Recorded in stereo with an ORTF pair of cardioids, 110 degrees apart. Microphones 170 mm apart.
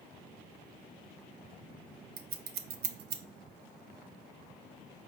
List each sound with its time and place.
2.2 s scissors: 65° right, 0.6 m